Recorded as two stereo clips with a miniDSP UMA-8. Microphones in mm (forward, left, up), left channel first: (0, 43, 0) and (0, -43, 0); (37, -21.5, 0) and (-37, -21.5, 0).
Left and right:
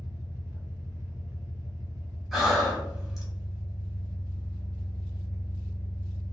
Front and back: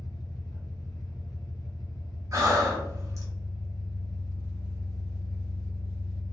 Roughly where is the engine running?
Ahead right.